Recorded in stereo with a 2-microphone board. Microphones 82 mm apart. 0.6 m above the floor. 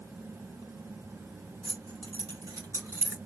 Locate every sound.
1.6 s keys jangling: 60° right (ahead or behind), 1.4 m; by 3.2 s 20° right (ahead or behind), 1.2 m